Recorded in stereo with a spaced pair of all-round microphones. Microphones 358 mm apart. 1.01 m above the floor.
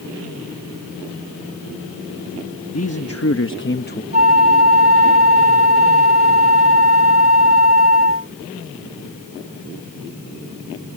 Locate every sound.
2.7 s a man speaking: 45° left (ahead or behind); by 4.0 s 25° left (ahead or behind)
4.1 s a flute: 45° left (ahead or behind)